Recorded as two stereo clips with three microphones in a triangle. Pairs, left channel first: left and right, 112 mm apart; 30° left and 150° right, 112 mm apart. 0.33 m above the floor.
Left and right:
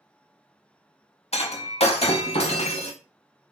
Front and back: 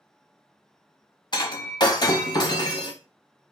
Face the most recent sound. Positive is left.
turn(degrees=75)